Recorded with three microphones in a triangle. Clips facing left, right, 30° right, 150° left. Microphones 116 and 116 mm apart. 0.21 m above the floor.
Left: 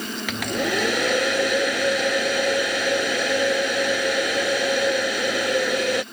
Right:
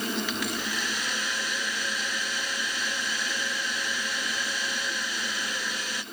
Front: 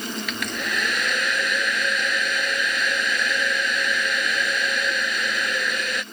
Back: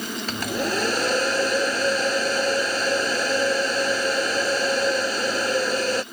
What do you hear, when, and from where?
0.3 s a hair dryer: 100° left